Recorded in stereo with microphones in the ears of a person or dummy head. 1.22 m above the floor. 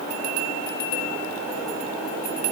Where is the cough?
I don't hear a cough.